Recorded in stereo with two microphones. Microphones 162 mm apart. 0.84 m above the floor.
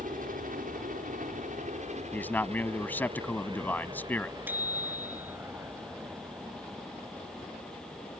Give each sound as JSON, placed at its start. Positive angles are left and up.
{"t": 0.0, "sound": "a helicopter", "side_deg": -60}
{"t": 2.1, "sound": "a man speaking", "side_deg": 10}
{"t": 4.5, "sound": "a bicycle bell", "side_deg": -10}